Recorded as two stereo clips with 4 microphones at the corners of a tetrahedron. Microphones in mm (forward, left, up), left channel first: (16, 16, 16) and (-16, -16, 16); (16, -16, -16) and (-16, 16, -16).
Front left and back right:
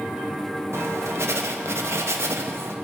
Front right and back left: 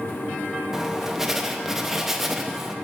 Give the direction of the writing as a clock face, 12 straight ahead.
5 o'clock.